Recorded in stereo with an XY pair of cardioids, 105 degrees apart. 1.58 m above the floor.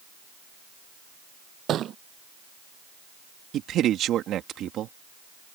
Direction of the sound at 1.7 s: 65° right.